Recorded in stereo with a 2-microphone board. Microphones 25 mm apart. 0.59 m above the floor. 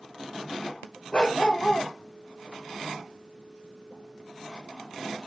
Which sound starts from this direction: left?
A dog barking, at 1.1 s.